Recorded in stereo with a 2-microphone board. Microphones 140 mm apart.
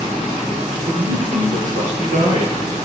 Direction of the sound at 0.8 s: 70° right (ahead or behind).